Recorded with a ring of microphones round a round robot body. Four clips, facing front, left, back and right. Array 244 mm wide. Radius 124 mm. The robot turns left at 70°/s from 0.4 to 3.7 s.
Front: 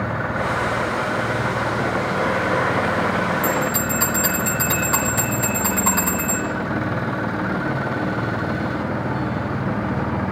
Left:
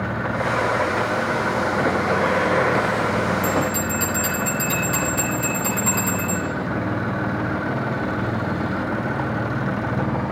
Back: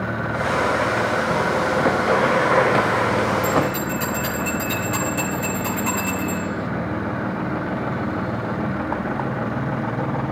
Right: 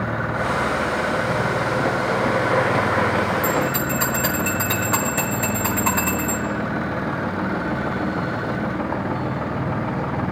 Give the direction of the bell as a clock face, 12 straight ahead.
1 o'clock.